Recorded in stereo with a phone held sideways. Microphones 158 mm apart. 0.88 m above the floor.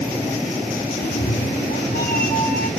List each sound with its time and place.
1.0 s a cat meowing: 75° left (ahead or behind), 0.8 m; by 2.7 s 85° left, 3 m